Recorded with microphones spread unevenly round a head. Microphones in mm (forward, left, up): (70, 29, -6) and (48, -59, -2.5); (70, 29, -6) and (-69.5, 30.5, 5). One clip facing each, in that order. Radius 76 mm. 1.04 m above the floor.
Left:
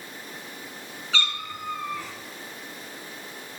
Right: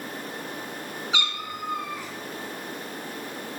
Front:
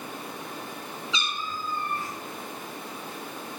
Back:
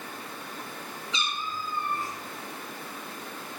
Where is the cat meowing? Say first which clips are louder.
Left 1 dB, back 1 dB; 30° right, 2 m.